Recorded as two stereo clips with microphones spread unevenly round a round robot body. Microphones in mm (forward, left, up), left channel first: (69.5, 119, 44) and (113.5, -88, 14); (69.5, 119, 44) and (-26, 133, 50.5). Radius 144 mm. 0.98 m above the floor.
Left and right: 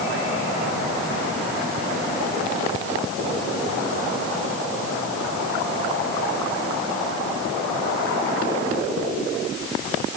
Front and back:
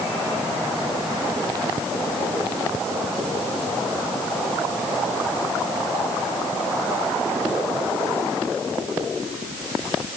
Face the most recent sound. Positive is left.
No sound to turn to.